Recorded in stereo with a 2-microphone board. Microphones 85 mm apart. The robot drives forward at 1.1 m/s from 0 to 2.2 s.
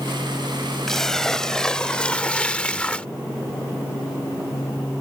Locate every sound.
0.9 s a splash: 5° left (ahead or behind); by 3.1 s 15° left (ahead or behind)